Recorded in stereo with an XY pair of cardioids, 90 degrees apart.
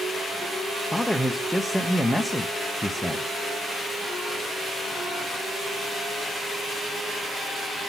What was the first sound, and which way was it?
A man speaking, straight ahead.